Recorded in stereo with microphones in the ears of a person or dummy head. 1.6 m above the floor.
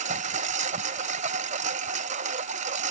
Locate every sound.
0.0 s a lawn mower: 45° right (ahead or behind)